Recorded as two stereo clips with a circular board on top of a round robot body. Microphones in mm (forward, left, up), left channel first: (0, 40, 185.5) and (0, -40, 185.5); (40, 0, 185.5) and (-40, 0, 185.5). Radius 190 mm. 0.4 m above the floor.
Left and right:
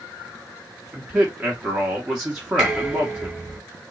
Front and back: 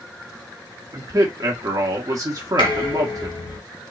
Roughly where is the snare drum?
No snare drum in this recording.